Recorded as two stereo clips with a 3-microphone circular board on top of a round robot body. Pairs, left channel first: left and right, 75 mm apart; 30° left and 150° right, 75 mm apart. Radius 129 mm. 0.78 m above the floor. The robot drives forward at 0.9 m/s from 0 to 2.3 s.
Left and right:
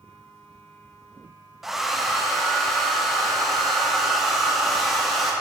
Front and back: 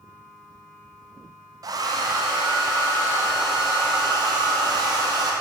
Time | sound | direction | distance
1.6 | a hair dryer | 175° right | 0.6 m